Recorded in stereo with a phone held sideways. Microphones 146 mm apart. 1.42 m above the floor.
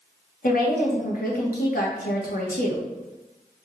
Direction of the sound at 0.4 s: 80° left.